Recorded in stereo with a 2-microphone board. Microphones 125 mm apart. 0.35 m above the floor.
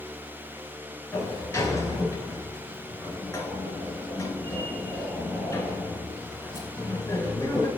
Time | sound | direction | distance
1.1 | a sliding door | 20° left (ahead or behind) | 1.2 m